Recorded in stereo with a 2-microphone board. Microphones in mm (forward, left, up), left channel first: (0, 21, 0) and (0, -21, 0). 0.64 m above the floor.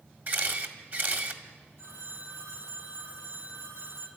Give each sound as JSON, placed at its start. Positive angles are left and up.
{"t": 0.3, "sound": "a camera shutter", "side_deg": -50, "distance_m": 1.8}
{"t": 1.8, "sound": "a phone ringing", "side_deg": -60, "distance_m": 4.0}